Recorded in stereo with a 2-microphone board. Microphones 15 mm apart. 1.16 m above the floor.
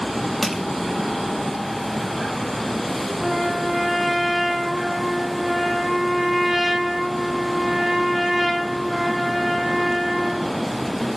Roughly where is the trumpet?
Centre.